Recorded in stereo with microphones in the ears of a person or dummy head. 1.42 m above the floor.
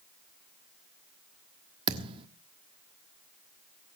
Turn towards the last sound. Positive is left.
turn(degrees=-30)  # may be behind; listen again after turning